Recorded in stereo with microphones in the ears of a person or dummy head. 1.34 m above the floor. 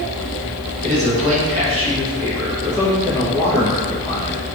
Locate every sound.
0.8 s a man speaking: 45° right (ahead or behind), 1.9 m; by 4.4 s 40° left (ahead or behind), 1.2 m